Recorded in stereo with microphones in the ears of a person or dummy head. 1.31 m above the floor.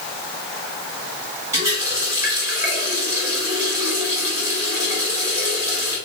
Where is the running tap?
20° right (ahead or behind), 1.7 m.